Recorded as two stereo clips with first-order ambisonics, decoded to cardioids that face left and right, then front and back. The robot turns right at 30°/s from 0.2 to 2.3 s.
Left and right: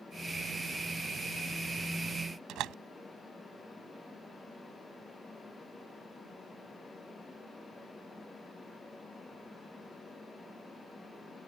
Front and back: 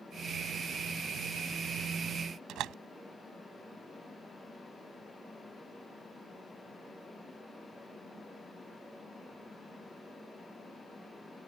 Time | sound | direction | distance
2.5 | a door slam | 135° right | ?